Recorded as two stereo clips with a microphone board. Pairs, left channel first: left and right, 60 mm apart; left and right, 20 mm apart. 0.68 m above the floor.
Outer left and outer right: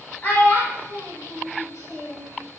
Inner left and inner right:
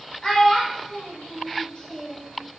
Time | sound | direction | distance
0.2 | a child speaking | 30° left (ahead or behind) | 1.8 m